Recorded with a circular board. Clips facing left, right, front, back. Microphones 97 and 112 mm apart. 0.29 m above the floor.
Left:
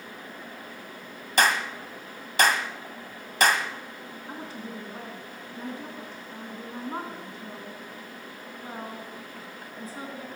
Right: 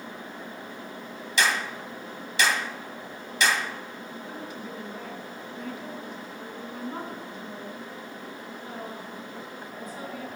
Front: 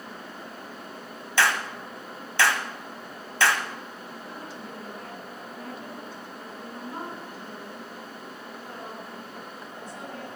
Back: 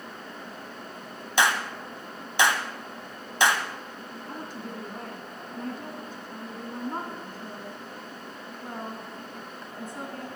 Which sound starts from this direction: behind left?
A woman speaking, at 4.2 s.